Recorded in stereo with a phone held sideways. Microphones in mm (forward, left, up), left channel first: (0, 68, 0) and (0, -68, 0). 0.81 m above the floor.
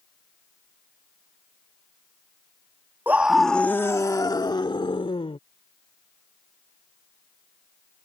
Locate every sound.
3.1 s a scream: 15° right (ahead or behind); by 5.4 s 45° left (ahead or behind)